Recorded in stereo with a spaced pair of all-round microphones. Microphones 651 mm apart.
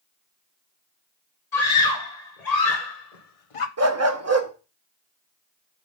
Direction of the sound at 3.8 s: 25° right (ahead or behind).